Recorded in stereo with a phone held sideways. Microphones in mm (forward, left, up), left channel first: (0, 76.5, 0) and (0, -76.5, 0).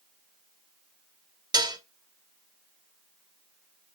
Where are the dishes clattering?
25° right (ahead or behind), 0.6 m.